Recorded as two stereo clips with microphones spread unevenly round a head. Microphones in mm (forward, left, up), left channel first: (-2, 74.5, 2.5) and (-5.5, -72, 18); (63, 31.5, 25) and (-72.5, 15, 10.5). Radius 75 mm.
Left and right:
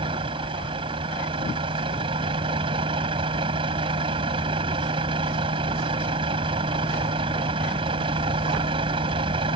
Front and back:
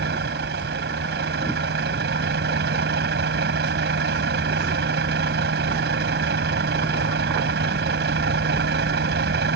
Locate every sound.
0.0 s a vehicle: 150° right